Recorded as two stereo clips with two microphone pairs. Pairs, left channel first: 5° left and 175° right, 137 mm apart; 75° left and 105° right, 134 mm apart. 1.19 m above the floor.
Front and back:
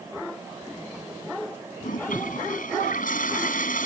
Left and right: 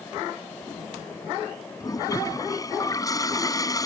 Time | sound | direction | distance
1.8 | a toilet flushing | 10° left | ?